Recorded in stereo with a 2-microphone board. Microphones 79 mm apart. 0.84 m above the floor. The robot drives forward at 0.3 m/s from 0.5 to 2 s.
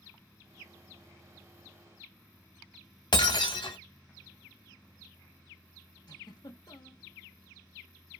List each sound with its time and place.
3.1 s breaking glass: 85° left, 1.1 m
6.1 s a giggle: 65° left (ahead or behind), 0.8 m